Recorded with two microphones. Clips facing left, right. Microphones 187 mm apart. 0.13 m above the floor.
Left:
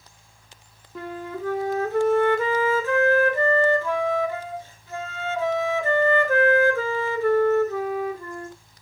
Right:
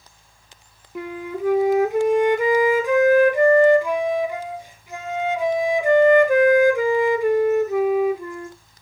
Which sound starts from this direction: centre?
A flute, at 0.9 s.